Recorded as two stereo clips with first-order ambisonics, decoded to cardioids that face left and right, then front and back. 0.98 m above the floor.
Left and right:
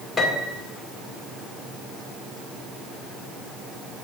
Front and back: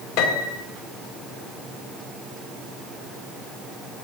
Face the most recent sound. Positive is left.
turn(degrees=15)